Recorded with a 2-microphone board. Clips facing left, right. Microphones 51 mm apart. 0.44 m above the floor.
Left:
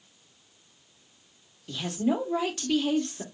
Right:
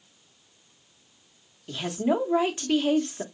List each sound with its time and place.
1.7 s a woman speaking: 25° right (ahead or behind), 0.8 m